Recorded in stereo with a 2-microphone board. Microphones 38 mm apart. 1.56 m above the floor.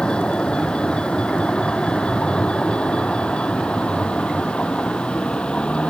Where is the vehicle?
25° left (ahead or behind).